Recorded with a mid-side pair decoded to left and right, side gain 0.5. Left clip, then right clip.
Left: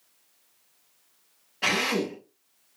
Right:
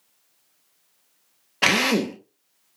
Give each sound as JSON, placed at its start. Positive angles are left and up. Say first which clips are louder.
{"t": 1.6, "sound": "a drill", "louder": "right 5 dB", "azimuth_deg": -65, "distance_m": 1.1}